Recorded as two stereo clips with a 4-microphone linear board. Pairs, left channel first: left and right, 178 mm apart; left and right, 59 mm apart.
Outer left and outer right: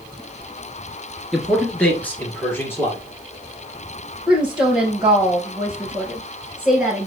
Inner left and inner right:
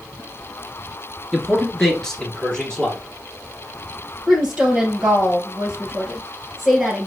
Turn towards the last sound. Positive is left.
turn(degrees=-5)  # may be behind; listen again after turning